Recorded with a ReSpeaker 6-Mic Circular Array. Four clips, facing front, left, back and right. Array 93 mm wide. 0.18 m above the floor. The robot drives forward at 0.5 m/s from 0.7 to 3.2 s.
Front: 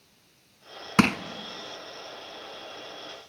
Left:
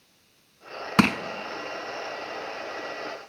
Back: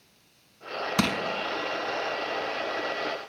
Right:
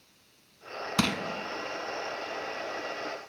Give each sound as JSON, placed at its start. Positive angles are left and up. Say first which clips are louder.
{"t": 1.0, "sound": "crushing", "louder": "left 8 dB, front 5 dB", "azimuth_deg": 50, "distance_m": 0.5}